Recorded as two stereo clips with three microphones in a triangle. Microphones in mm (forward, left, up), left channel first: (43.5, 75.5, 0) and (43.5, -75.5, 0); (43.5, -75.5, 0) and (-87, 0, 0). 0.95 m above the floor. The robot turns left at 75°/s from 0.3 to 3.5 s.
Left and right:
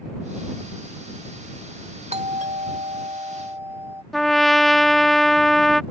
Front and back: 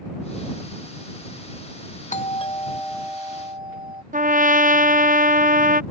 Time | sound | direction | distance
2.1 | a doorbell | 55° right | ?
4.1 | a trumpet | straight behind | ?